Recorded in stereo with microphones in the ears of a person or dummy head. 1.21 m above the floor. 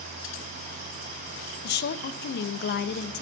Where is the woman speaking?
50° left (ahead or behind), 0.7 m.